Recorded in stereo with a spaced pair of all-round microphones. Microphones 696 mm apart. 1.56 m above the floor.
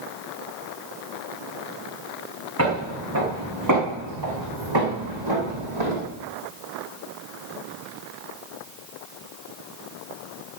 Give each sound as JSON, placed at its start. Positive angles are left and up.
{"t": 2.6, "sound": "footsteps", "side_deg": -20, "distance_m": 5.0}